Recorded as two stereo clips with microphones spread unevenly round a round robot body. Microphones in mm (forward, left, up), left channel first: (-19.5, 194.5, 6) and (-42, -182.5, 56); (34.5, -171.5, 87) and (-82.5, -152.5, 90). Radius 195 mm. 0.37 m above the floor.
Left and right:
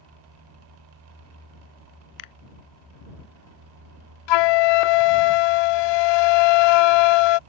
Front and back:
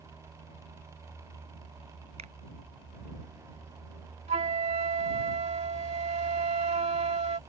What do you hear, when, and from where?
2.2 s a finger snap: 120° left
4.3 s a flute: 110° left